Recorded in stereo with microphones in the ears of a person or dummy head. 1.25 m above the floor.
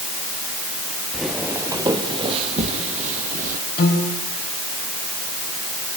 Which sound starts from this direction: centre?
Footsteps, at 1.1 s.